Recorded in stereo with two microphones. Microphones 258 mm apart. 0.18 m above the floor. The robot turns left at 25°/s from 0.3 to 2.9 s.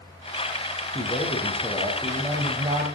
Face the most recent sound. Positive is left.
turn(degrees=-20)